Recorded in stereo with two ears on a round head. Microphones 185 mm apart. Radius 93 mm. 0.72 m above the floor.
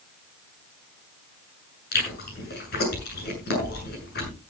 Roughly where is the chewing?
Left.